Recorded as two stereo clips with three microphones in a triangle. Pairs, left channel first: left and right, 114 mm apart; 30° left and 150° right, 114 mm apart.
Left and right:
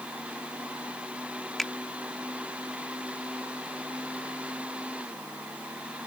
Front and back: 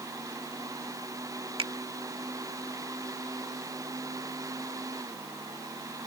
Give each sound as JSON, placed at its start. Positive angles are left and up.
{"t": 1.6, "sound": "a finger snap", "azimuth_deg": 175}